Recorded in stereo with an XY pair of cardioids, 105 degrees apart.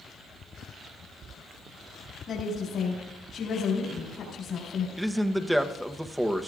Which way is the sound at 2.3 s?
60° left.